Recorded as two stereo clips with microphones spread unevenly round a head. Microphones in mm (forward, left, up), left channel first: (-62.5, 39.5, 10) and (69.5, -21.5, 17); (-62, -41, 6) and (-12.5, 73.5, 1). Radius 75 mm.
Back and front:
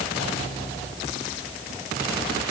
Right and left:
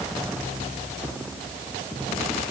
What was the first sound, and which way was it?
Only background noise.